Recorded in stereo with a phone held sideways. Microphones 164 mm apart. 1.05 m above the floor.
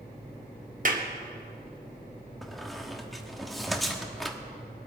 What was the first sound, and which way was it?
A clap, 55° right (ahead or behind).